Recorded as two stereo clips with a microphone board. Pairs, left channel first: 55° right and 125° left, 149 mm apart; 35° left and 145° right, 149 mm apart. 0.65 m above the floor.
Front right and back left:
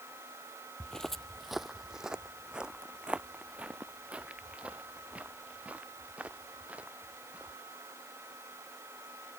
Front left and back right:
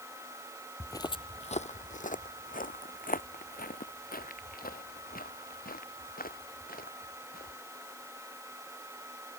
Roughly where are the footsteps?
Ahead.